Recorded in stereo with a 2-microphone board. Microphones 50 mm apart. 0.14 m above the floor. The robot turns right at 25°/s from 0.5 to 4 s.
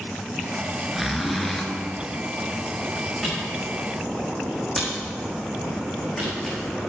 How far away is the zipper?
About 1.6 m.